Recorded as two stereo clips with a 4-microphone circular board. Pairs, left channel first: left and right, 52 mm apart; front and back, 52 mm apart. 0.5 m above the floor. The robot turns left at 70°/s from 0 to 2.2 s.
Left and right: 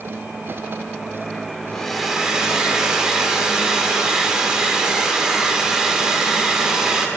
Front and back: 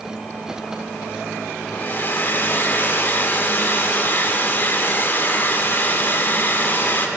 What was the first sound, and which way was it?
A hair dryer, 20° left.